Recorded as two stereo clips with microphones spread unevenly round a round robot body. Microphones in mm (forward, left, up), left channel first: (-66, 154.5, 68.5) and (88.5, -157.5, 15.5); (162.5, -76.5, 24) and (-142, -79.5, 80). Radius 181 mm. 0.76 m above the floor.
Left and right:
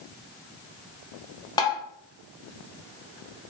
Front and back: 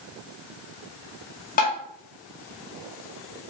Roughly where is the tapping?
Ahead left.